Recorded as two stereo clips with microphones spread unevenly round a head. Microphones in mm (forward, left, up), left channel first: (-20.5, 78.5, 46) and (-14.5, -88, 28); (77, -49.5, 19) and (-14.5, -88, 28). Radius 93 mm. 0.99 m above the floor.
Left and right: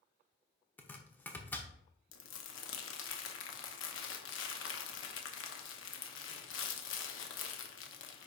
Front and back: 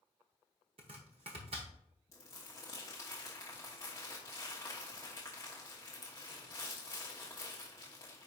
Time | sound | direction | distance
0.8 | chopping | 165° left | 0.9 m
2.1 | crumpling | 100° left | 1.0 m